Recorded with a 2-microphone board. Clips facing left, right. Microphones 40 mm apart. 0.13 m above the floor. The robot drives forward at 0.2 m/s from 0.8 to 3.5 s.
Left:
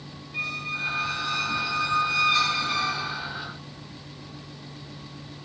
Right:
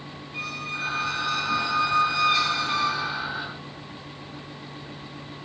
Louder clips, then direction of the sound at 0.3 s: Left 2 dB; 5° right (ahead or behind).